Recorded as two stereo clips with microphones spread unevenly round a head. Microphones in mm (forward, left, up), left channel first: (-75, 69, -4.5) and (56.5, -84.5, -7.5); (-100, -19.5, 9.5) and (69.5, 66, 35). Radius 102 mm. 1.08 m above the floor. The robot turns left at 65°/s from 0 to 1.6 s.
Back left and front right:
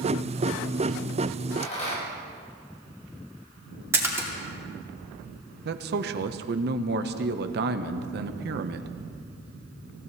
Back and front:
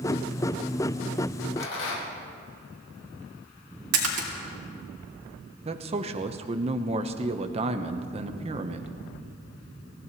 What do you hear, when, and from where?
1.6 s a rattle: 170° right, 5 m; by 2.2 s 175° right, 5 m
3.9 s a splash: 30° left, 2.5 m
5.7 s a man speaking: 30° right, 0.8 m